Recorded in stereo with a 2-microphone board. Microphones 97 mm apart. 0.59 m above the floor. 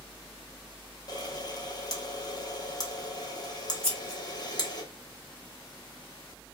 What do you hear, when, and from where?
1.1 s a camera shutter: 40° left (ahead or behind), 0.8 m
3.8 s scissors: 15° left (ahead or behind), 1.3 m